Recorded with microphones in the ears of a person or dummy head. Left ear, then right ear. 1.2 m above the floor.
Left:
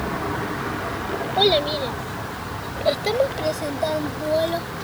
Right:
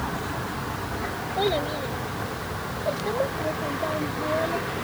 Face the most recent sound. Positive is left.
turn(degrees=85)